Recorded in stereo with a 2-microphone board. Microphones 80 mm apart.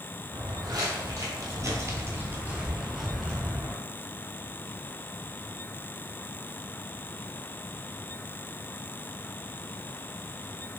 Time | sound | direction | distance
0.3 | footsteps | 55° right (ahead or behind) | 1.6 m